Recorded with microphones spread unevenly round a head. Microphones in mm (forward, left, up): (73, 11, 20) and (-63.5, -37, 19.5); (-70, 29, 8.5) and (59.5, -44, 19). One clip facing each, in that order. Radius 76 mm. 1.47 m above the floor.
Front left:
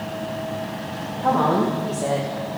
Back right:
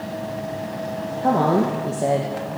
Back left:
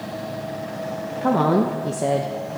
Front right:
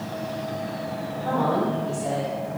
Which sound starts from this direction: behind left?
A woman speaking, at 1.2 s.